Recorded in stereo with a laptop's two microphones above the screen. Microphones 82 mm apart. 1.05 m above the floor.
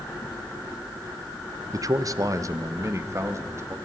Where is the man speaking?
45° right (ahead or behind), 0.6 m; by 3.8 s 35° right (ahead or behind), 1.8 m.